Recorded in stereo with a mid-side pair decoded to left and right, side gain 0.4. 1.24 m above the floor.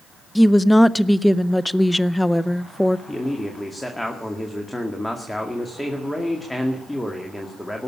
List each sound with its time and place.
0.3 s a woman speaking: 10° left, 0.6 m
3.1 s a man speaking: 10° left, 2 m